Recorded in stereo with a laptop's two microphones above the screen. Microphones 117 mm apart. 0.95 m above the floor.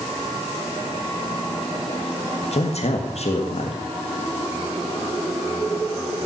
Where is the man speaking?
65° left (ahead or behind), 1.8 m.